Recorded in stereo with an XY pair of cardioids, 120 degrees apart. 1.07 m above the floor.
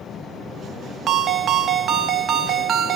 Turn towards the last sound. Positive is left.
turn(degrees=-45)